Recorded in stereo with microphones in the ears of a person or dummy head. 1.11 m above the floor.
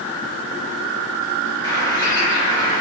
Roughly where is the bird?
Left.